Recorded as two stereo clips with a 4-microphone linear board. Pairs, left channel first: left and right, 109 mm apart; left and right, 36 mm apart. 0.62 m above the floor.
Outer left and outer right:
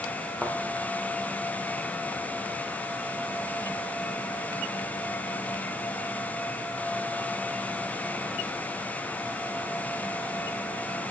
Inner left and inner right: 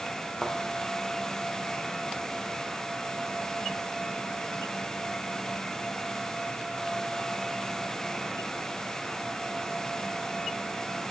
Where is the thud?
5° right (ahead or behind), 4 m.